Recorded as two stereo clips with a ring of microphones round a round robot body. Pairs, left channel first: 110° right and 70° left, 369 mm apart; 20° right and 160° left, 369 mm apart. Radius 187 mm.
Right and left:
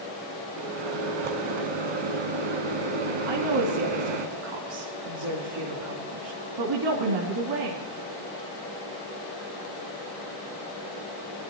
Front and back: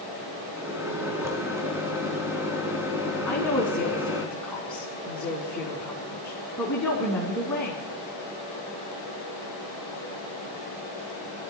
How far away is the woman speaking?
About 3.5 m.